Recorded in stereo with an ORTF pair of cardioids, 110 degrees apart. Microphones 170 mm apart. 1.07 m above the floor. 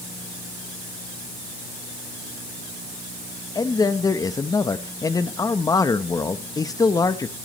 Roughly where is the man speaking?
Ahead.